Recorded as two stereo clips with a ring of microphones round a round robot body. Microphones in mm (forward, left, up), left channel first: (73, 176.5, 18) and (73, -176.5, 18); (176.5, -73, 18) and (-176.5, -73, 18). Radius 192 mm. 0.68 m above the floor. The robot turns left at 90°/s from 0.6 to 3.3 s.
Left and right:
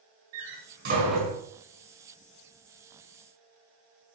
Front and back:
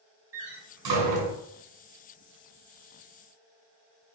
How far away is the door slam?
About 6 m.